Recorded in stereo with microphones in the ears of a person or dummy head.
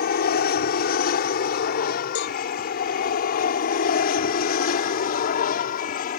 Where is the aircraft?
55° left (ahead or behind); by 6.2 s 50° left (ahead or behind).